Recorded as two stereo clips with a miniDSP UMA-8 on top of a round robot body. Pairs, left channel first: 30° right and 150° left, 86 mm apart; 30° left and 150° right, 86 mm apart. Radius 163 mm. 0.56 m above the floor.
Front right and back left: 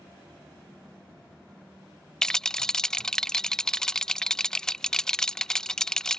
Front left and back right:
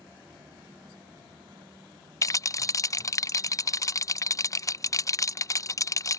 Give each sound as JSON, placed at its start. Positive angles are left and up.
{"t": 2.2, "sound": "a rattle", "azimuth_deg": 50}